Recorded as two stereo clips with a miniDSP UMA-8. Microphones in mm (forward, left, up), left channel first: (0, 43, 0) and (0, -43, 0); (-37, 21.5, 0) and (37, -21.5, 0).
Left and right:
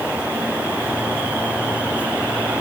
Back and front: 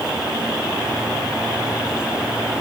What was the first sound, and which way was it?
Only background noise.